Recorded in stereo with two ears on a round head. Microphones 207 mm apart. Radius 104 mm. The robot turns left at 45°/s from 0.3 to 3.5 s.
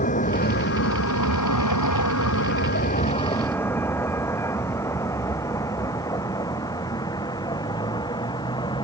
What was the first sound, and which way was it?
A vehicle, 35° left (ahead or behind).